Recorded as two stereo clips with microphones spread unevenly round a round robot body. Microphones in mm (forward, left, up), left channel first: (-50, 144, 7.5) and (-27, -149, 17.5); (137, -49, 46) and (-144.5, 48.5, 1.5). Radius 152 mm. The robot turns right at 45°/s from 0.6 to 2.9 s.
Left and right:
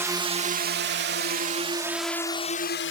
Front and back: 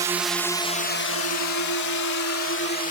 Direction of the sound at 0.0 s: 160° right.